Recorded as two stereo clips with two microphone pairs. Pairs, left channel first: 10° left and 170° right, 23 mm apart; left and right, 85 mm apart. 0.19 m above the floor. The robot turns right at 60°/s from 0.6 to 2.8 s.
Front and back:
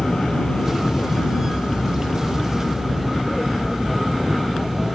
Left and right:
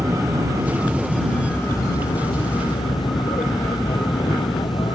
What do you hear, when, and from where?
0.0 s an aircraft: 35° right; by 5.0 s 90° left